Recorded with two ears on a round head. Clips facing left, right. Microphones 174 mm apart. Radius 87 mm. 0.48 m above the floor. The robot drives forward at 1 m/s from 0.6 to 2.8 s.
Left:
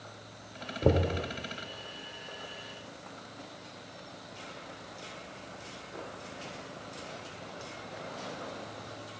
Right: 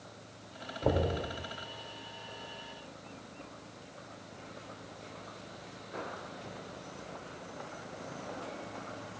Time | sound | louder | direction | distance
0.8 | knocking | left 3 dB | 45° left (ahead or behind) | 1.4 m